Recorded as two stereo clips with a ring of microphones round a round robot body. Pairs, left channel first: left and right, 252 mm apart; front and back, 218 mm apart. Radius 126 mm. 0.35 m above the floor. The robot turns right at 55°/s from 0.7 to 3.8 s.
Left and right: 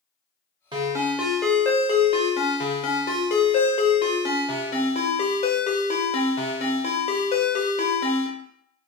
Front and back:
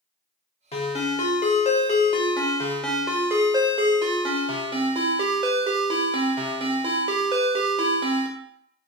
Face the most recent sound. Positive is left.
turn(degrees=135)